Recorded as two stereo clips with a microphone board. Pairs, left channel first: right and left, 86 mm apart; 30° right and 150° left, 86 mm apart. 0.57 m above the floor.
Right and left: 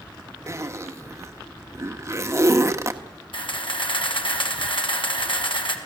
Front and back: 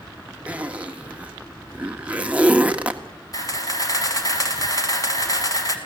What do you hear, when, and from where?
0.5 s a zipper: 90° left, 1.3 m
3.3 s a camera shutter: 75° right, 2 m